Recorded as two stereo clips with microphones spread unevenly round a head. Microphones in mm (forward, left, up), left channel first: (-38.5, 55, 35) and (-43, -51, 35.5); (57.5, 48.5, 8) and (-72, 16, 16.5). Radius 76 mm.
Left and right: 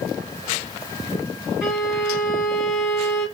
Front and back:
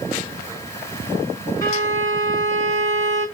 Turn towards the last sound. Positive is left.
turn(degrees=-20)